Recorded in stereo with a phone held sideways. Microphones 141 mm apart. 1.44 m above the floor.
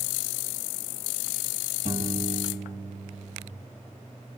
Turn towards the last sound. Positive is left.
turn(degrees=-60)  # may be behind; listen again after turning